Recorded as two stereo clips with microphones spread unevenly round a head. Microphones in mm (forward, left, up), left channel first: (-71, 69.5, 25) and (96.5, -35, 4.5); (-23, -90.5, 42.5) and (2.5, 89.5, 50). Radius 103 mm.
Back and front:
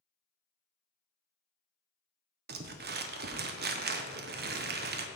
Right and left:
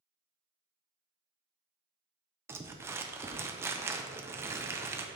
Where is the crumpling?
5° left, 0.6 m.